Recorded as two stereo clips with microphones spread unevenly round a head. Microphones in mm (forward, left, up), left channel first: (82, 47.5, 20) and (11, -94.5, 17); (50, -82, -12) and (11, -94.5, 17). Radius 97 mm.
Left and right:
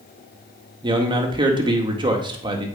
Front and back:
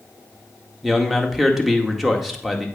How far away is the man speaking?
About 1.8 m.